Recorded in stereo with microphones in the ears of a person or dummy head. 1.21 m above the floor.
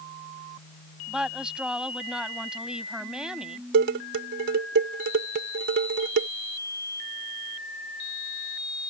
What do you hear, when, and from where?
1.1 s a woman speaking: 5° right (ahead or behind)
3.7 s dishes clattering: 65° right (ahead or behind)